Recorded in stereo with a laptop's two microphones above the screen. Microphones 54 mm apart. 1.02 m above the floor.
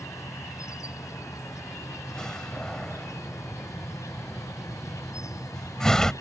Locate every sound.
0.0 s an insect: 80° left
2.1 s a door slam: 10° left (ahead or behind)